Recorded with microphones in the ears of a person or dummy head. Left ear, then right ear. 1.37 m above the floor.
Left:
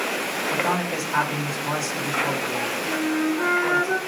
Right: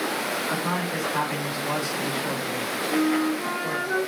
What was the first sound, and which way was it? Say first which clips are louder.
A man speaking: left 3 dB; 45° left (ahead or behind).